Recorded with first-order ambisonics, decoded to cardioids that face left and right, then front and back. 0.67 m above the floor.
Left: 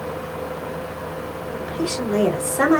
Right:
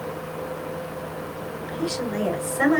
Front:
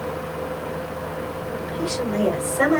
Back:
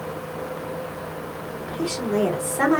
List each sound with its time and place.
1.6 s a woman speaking: 105° left, 3 m